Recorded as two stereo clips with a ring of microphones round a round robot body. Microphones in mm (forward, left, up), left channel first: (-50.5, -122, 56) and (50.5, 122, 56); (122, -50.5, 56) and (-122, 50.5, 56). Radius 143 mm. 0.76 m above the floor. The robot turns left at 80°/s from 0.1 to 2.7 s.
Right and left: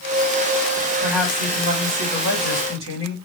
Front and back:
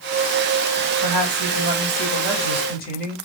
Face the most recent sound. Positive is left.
turn(degrees=30)